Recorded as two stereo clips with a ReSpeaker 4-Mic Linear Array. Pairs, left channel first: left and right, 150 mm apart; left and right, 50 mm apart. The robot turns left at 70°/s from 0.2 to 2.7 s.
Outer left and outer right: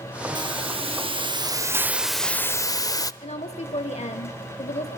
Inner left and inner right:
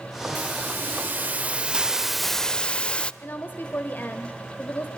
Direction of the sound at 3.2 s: 45° left (ahead or behind).